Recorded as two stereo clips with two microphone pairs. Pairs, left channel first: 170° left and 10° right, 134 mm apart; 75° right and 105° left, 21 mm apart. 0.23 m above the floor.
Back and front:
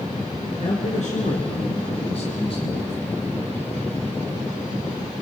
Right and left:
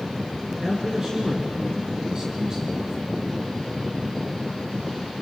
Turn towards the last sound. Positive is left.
turn(degrees=150)